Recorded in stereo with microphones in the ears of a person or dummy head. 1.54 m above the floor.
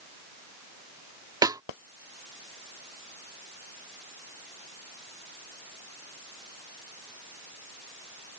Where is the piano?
I don't hear a piano.